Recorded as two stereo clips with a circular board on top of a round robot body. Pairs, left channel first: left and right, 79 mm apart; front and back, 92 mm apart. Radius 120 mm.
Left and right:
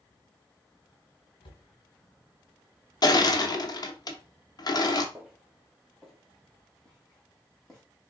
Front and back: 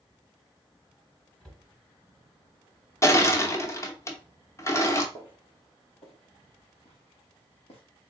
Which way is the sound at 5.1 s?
5° right.